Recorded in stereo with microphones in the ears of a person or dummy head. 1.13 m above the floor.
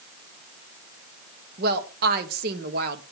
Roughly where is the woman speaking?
Right.